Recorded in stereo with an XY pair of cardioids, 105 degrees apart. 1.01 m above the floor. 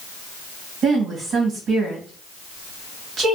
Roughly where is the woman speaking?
Ahead right.